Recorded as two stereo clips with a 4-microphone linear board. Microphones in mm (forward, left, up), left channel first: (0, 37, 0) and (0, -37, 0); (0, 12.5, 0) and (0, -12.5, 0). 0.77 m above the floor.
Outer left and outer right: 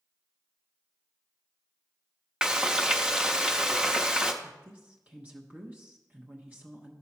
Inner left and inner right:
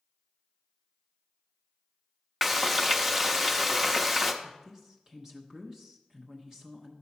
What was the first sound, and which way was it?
Frying, 10° right (ahead or behind).